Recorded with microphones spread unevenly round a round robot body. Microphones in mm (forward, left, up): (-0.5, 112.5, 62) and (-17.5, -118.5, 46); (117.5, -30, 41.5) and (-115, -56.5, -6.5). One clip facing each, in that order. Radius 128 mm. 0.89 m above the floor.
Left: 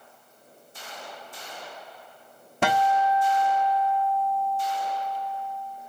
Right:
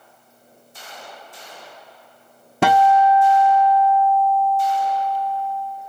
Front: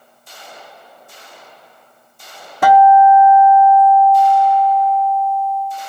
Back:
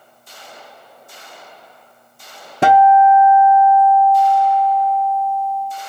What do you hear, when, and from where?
2.6 s a guitar: 105° right, 0.6 m